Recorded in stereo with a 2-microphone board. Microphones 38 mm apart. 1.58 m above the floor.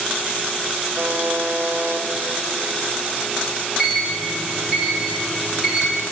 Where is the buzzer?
85° right, 0.8 m.